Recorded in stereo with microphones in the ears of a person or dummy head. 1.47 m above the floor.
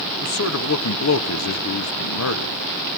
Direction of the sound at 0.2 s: 80° left.